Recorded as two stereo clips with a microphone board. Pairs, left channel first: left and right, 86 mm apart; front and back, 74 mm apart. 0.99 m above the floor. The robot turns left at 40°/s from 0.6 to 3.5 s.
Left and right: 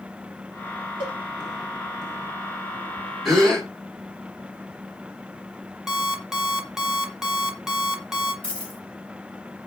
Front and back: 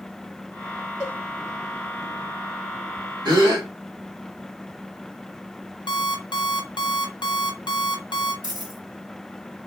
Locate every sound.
1.0 s a cowbell: 100° right, 2.0 m; by 1.2 s 105° right, 2.0 m
3.2 s a gasp: 175° right, 1.6 m; by 3.7 s 175° left, 1.6 m
5.9 s an alarm clock: 5° right, 0.7 m
8.4 s a dropped coin: 165° left, 2 m